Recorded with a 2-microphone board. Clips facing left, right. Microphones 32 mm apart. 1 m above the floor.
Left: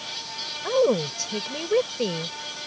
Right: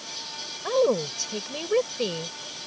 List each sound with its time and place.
0.6 s a woman speaking: centre (ahead or behind)